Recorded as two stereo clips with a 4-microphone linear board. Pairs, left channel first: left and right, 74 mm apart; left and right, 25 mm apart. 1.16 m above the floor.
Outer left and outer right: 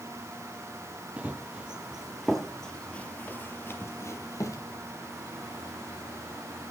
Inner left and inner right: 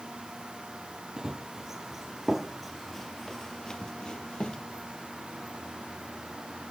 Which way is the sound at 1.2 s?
20° right (ahead or behind).